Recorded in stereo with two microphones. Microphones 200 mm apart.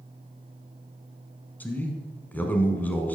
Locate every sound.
1.6 s a man speaking: 10° left (ahead or behind), 1.1 m